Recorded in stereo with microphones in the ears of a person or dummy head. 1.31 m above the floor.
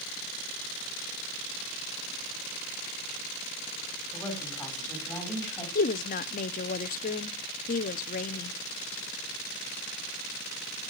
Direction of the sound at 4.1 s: 10° left (ahead or behind).